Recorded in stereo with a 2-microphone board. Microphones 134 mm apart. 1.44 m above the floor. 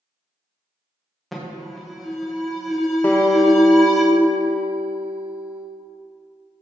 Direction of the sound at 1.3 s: Centre (ahead or behind).